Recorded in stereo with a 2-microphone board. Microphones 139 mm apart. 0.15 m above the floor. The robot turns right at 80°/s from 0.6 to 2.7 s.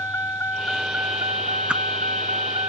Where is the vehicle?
165° left; by 2.7 s 30° right.